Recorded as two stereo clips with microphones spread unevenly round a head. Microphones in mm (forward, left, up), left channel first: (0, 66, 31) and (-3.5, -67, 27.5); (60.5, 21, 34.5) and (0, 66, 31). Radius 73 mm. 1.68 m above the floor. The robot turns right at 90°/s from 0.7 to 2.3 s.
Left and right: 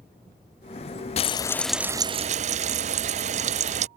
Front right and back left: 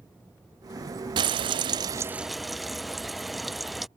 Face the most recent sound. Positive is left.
turn(degrees=-125)